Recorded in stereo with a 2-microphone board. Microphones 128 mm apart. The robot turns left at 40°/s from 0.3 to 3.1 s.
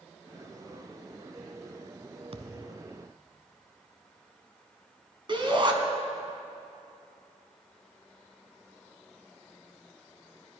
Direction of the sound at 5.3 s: 40° right (ahead or behind).